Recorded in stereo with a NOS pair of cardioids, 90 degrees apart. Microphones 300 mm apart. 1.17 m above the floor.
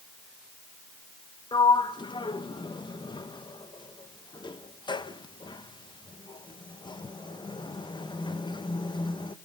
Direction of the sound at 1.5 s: 15° left.